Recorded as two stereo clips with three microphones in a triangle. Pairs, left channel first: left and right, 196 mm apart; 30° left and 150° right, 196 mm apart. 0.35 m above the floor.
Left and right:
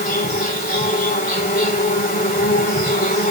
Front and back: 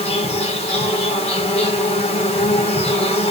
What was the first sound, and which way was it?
An insect, 75° left.